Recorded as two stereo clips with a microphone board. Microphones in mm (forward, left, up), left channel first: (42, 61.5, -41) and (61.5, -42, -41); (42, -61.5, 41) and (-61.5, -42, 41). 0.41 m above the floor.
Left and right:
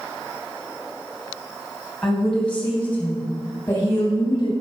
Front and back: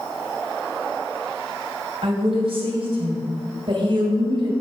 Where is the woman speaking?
175° right, 3 m; by 4.5 s 150° left, 2.5 m.